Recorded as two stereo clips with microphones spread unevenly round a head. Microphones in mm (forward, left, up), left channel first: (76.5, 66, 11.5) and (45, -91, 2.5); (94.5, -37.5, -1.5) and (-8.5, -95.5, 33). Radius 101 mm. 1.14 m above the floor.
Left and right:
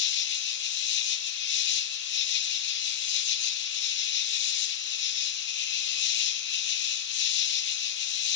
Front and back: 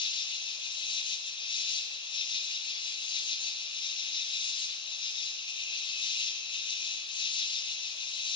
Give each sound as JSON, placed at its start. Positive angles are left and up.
{"t": 0.0, "sound": "an insect", "azimuth_deg": 85, "distance_m": 1.0}